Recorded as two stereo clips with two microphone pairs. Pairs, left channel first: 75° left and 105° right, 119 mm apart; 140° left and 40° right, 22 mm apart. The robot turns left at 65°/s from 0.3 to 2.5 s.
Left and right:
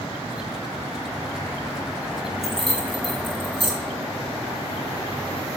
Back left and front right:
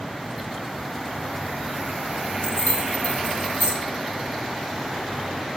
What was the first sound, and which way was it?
Keys jangling, 170° left.